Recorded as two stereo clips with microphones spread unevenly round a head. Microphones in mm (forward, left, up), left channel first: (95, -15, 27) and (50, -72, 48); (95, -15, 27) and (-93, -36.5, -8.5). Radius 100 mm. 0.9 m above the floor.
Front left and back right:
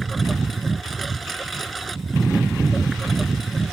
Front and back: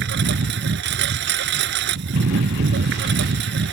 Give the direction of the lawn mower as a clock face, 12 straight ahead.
7 o'clock.